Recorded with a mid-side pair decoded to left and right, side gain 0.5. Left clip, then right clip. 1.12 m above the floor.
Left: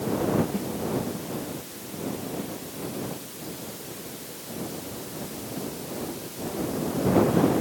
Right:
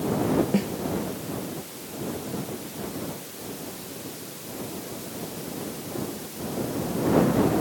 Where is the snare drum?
55° right.